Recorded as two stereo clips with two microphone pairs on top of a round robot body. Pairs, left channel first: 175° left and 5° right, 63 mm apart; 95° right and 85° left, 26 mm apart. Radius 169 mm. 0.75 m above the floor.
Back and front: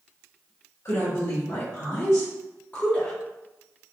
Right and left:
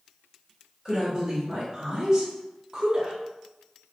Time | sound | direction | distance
0.8 | a woman speaking | 160° left | 1.8 m